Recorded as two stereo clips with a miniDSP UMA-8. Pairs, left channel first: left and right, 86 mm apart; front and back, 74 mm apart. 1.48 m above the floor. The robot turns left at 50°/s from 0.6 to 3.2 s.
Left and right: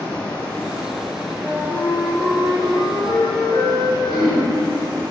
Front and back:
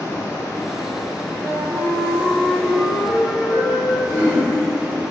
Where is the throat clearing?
20° right, 1.2 m.